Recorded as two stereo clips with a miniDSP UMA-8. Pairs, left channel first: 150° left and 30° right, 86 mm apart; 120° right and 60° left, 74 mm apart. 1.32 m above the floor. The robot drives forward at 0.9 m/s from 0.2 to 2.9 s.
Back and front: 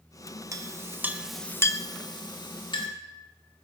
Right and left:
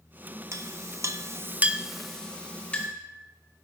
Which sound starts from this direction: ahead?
A clink, at 0.5 s.